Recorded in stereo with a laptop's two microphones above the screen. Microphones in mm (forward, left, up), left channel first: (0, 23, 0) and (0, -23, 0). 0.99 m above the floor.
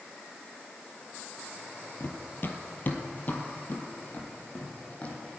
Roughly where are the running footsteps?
Left.